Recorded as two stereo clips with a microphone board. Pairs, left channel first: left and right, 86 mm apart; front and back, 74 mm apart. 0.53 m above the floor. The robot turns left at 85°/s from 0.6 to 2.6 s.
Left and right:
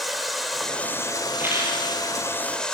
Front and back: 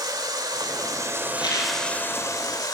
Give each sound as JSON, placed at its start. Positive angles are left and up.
{"t": 0.0, "sound": "running water", "azimuth_deg": 180, "distance_m": 1.7}
{"t": 1.3, "sound": "a rattle", "azimuth_deg": -15, "distance_m": 6.0}